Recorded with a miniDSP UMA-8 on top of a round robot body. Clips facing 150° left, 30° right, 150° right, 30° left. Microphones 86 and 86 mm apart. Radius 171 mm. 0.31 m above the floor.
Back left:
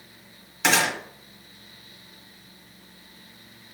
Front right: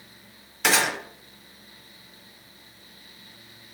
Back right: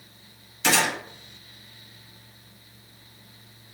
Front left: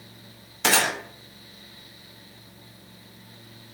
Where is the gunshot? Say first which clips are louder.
Back left 1 dB, even; 60° left, 1.4 m.